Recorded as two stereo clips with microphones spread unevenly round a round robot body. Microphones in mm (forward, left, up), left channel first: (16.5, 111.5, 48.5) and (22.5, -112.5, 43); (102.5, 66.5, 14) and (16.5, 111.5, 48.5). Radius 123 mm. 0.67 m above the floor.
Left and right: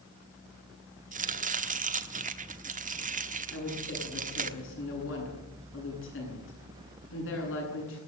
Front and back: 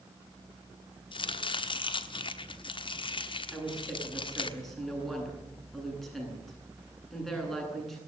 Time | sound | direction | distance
1.1 | chopping | 35° right | 1.2 m
3.5 | a woman speaking | 60° left | 9.5 m